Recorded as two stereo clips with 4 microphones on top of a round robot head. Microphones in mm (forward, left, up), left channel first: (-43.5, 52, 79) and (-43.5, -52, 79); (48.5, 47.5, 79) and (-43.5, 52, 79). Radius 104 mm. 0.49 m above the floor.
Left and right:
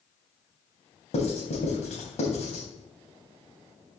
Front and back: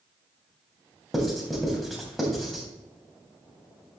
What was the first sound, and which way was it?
Writing, 85° left.